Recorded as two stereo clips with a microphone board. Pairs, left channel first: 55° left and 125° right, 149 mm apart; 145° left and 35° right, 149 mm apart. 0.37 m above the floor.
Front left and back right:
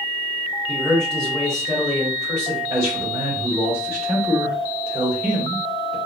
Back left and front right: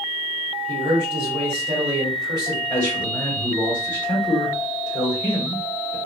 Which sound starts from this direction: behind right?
A man speaking, at 2.7 s.